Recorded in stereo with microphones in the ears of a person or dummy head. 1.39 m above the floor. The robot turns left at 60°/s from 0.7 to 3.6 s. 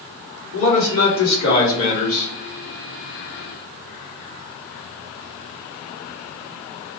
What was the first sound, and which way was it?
A man speaking, 100° left.